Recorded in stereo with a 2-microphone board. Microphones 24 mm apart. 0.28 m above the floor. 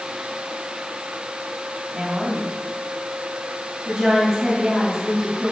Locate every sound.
1.9 s a woman speaking: 20° right (ahead or behind), 2 m